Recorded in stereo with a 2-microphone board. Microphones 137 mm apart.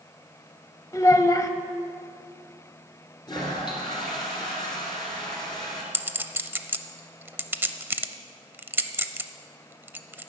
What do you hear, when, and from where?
0.9 s a child speaking: 25° left (ahead or behind), 0.7 m
3.3 s a toilet flushing: 30° left (ahead or behind), 3 m
5.9 s a clink: 15° right (ahead or behind), 0.5 m